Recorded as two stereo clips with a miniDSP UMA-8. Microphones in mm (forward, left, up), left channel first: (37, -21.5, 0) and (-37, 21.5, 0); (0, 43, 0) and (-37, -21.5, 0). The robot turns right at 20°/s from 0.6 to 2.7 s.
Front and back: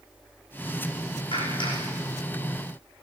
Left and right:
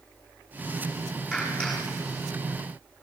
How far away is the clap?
About 9 m.